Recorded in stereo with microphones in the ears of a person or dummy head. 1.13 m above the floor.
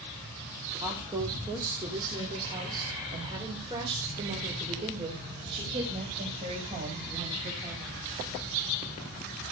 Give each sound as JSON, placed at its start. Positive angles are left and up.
{"t": 0.8, "sound": "a woman speaking", "side_deg": -15, "distance_m": 2.5}